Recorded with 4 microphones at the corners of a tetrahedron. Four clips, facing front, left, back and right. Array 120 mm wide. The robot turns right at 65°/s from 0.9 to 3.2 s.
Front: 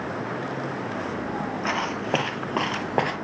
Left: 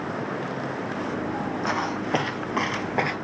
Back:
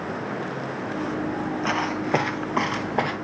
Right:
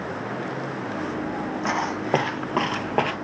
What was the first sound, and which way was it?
Footsteps, 95° right.